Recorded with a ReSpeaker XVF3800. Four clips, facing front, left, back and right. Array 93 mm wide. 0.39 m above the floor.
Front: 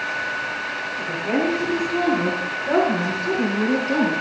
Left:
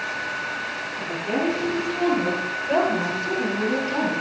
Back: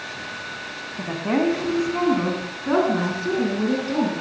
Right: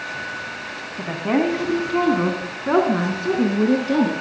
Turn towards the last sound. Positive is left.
turn(degrees=-95)